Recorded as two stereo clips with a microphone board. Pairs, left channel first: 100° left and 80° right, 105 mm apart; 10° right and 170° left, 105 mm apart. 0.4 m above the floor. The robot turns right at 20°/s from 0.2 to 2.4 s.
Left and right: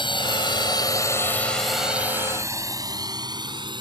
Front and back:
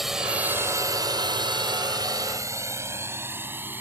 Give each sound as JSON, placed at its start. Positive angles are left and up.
{"t": 0.0, "sound": "a drone", "azimuth_deg": 85}